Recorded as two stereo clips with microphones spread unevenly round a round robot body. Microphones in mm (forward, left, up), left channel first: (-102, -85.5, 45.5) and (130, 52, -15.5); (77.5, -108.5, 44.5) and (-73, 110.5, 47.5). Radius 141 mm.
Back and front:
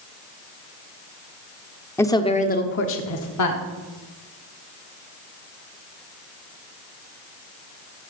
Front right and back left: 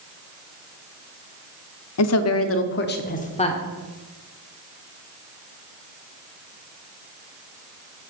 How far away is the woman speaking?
About 1.4 m.